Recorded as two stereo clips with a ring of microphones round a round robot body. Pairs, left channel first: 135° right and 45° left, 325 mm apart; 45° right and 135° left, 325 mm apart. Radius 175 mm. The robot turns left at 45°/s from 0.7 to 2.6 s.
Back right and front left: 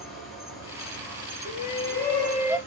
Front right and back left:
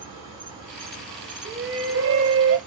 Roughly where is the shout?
Behind.